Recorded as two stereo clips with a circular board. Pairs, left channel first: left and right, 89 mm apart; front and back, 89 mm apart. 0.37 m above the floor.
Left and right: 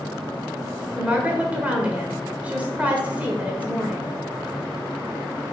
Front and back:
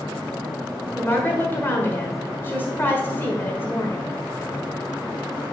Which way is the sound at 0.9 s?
35° right.